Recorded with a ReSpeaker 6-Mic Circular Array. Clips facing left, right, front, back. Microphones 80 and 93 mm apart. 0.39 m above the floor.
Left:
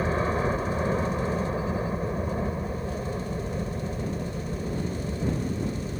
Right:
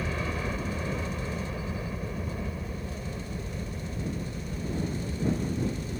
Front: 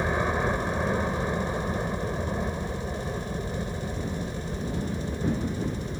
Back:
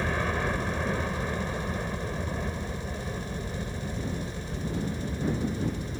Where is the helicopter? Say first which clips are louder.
Left 7 dB, front 3 dB; 65° left.